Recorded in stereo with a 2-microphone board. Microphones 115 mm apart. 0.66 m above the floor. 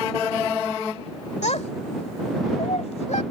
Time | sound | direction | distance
1.4 | a child speaking | 75° left (ahead or behind) | ?